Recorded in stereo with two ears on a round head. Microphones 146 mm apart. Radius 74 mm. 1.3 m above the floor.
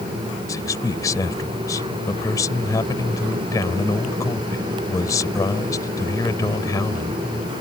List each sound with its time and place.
0.5 s a man speaking: 20° left (ahead or behind)